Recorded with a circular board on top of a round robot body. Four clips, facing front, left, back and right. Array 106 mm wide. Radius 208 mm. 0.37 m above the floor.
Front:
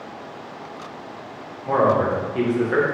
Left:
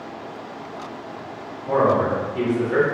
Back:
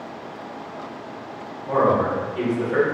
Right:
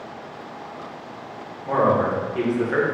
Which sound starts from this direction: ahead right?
A man speaking, at 1.7 s.